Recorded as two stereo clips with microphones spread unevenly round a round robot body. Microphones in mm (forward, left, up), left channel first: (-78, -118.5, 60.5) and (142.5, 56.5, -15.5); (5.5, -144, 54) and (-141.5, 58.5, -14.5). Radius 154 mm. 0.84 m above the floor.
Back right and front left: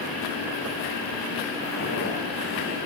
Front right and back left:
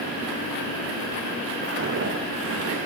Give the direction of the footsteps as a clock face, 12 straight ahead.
6 o'clock.